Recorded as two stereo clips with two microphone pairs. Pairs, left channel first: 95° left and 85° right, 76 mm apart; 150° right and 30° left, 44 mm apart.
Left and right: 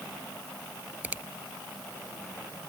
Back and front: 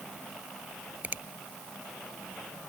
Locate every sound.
1.0 s a finger snap: 20° right